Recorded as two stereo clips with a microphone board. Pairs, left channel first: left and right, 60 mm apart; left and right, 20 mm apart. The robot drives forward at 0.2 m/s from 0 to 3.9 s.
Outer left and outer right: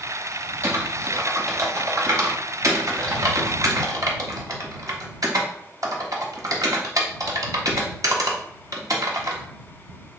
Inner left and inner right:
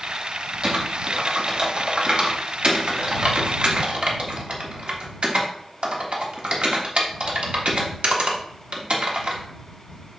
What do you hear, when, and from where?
0.6 s typing on a keyboard: 50° right (ahead or behind), 1.6 m; by 9.4 s 65° right (ahead or behind), 1.3 m